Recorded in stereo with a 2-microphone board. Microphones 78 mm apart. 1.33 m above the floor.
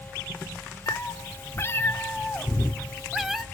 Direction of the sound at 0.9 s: 45° left (ahead or behind).